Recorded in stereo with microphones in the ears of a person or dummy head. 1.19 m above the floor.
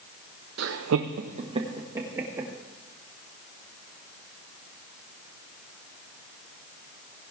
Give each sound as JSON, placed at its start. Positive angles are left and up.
{"t": 0.6, "sound": "laughter", "side_deg": -60, "distance_m": 0.6}